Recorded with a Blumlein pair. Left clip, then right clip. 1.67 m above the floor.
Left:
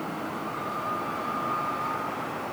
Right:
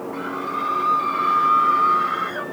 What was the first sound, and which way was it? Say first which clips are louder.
A scream: right 7 dB; 60° right.